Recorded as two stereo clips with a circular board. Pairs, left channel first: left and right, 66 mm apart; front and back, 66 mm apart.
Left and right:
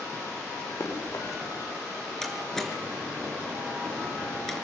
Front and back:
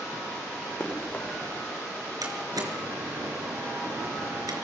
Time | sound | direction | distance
0.8 | running footsteps | 60° left | 10 m
2.2 | a door slam | 175° left | 5 m